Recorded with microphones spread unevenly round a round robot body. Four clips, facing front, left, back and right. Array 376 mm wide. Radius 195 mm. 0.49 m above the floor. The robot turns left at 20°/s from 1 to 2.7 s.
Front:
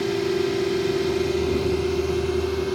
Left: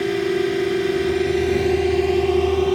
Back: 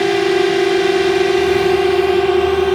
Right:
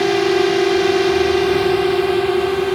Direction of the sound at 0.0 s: 150° right.